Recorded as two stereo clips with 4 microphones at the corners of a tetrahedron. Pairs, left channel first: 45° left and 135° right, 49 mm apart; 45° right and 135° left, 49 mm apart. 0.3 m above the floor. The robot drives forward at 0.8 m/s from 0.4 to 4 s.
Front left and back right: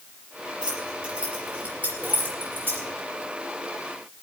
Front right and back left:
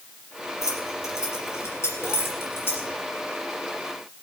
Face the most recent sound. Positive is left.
turn(degrees=-100)